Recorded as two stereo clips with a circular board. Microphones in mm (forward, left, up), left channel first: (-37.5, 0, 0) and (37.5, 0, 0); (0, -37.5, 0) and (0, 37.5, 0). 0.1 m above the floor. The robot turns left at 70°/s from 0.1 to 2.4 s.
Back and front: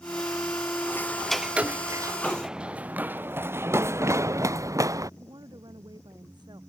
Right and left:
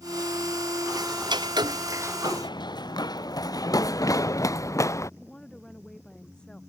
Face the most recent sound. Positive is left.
turn(degrees=-10)